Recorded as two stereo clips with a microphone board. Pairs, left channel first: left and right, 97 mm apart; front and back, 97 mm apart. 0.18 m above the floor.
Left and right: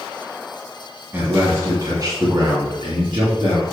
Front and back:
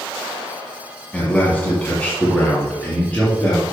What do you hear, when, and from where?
1.1 s a man speaking: 55° right, 1.8 m; by 3.6 s 75° right, 3 m